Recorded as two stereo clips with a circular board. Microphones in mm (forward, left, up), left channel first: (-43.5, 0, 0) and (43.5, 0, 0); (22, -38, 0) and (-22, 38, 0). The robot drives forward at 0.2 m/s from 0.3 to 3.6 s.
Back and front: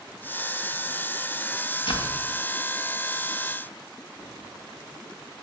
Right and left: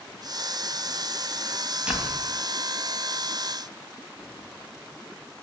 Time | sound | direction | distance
1.9 | a door slam | 160° right | 2.5 m